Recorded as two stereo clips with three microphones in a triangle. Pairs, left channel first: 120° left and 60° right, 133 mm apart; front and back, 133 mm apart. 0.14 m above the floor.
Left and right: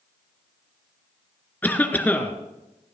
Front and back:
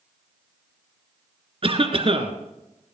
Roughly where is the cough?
Behind.